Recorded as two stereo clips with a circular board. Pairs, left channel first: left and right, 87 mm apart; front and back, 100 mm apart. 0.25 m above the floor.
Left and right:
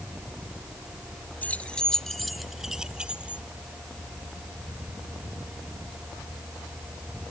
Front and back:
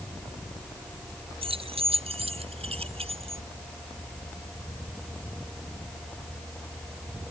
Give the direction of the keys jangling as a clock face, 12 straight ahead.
7 o'clock.